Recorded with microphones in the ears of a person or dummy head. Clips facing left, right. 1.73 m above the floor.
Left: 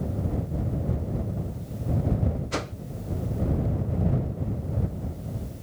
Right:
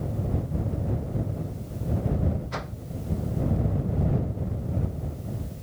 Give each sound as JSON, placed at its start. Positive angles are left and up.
{"t": 2.5, "sound": "a whoosh", "side_deg": 50}